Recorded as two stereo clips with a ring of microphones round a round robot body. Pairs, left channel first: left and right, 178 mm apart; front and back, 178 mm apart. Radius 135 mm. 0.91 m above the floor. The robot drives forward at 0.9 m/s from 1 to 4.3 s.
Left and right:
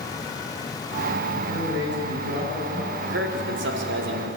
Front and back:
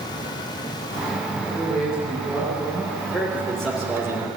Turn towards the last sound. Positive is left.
turn(degrees=-100)